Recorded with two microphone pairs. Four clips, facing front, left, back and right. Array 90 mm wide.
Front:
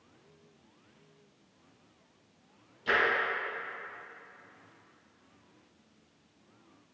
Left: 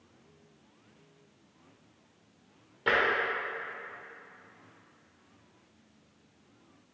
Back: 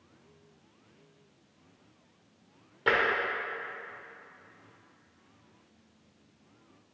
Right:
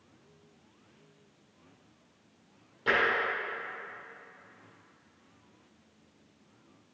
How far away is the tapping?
About 2.5 m.